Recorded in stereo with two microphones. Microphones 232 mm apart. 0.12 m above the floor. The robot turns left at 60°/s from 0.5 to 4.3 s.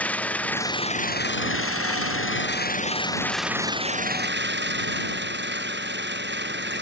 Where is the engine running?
175° left; by 6.8 s 55° right.